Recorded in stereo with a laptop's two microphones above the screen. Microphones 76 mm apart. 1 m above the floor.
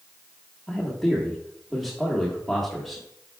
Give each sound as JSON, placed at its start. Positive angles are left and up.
{"t": 0.7, "sound": "a man speaking", "side_deg": 0, "distance_m": 1.6}